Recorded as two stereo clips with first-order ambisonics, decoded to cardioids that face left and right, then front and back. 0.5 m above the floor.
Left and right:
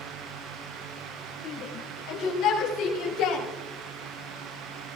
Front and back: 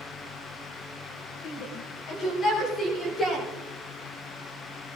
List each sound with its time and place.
1.4 s a shout: 40° left, 2.5 m; by 3.5 s 70° left, 4.5 m